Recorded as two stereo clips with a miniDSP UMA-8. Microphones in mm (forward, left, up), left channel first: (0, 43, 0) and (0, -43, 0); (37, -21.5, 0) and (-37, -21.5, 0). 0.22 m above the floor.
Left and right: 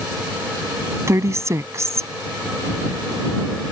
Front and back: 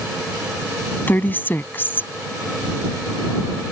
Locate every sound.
1.1 s a woman speaking: 50° right